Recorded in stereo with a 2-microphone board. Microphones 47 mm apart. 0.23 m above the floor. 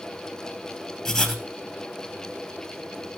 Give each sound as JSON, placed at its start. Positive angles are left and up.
{"t": 1.1, "sound": "writing", "side_deg": 10, "distance_m": 3.0}